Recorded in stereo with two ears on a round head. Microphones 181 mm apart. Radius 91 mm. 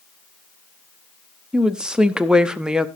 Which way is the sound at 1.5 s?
5° right (ahead or behind).